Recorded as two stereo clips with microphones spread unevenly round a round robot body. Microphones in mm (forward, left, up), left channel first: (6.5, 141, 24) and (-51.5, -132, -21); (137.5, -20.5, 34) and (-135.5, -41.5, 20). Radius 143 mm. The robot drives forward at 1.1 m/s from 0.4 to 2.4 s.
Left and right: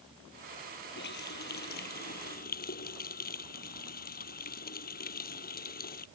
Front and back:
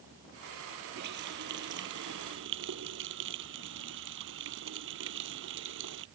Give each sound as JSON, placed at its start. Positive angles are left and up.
{"t": 0.9, "sound": "a running tap", "azimuth_deg": 130}